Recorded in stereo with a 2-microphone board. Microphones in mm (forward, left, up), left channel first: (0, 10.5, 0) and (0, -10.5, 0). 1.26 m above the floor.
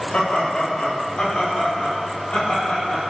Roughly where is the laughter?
Left.